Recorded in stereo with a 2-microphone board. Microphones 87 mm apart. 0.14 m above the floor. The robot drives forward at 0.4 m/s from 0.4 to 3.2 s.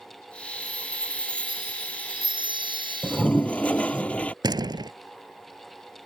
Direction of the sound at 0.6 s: 85° right.